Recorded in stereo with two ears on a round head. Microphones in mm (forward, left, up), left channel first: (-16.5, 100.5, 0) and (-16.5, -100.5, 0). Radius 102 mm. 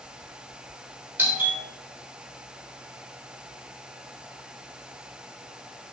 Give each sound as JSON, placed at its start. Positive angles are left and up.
{"t": 1.2, "sound": "a doorbell", "side_deg": -10, "distance_m": 3.5}